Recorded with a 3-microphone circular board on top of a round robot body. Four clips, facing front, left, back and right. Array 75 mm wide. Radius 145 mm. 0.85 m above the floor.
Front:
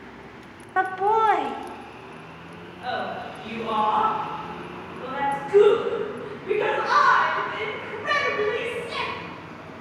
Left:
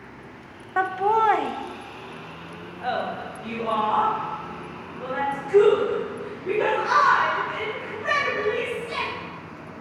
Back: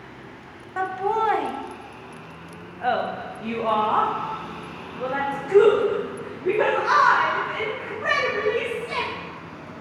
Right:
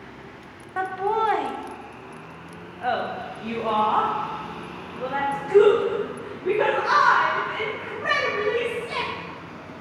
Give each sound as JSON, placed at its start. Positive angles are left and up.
{"t": 0.8, "sound": "laughter", "azimuth_deg": 45, "distance_m": 1.0}